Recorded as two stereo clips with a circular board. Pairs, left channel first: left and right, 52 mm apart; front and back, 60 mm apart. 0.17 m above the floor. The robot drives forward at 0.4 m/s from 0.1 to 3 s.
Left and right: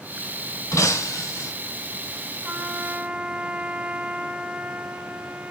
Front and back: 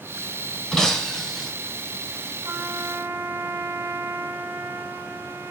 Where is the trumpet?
155° right, 3 m.